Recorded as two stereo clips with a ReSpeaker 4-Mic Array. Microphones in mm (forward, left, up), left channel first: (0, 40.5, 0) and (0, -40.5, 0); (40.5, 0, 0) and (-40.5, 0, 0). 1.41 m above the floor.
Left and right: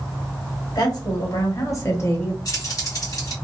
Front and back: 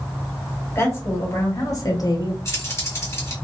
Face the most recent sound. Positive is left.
turn(degrees=55)